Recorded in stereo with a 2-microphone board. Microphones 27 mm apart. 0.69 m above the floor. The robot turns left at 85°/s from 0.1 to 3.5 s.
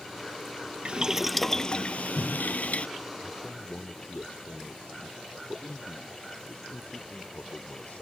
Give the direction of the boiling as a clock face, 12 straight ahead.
5 o'clock.